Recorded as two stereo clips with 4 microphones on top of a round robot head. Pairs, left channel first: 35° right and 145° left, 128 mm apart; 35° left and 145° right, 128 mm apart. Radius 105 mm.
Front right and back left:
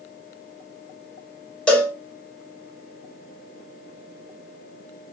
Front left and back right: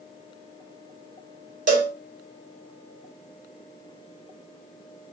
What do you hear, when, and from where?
1.7 s a cowbell: 120° right, 0.6 m